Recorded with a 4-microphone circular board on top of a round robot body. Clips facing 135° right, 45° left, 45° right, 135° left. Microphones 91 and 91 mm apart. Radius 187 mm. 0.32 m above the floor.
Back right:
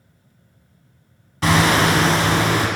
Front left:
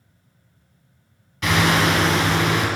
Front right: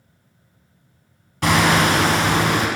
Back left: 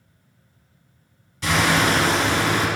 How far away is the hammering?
About 1.5 m.